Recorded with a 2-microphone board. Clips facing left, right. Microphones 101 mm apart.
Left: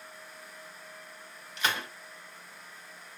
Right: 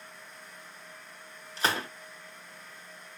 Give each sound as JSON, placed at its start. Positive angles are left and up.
{"t": 1.6, "sound": "a gunshot", "side_deg": -35, "distance_m": 0.8}